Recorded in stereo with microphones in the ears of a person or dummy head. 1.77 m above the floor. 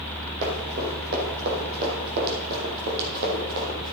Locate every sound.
0.4 s running footsteps: 50° right (ahead or behind), 5.5 m